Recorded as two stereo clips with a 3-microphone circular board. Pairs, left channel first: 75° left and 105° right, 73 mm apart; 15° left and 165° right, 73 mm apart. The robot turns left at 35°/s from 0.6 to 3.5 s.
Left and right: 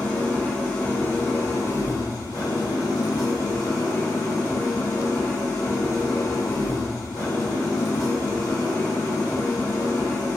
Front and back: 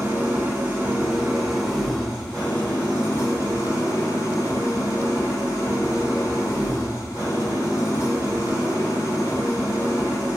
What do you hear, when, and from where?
0.0 s an engine running: 145° left, 1.2 m; by 10.4 s 40° left, 1.2 m